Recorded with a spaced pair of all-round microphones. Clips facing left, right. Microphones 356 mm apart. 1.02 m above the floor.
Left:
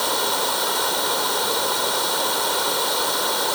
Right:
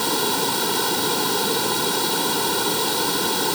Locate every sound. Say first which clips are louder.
0.0 s running water: right 3 dB; 40° right (ahead or behind)